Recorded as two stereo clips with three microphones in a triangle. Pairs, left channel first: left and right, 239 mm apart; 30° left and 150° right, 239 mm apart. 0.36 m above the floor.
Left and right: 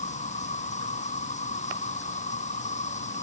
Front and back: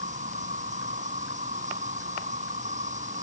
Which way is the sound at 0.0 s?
150° left.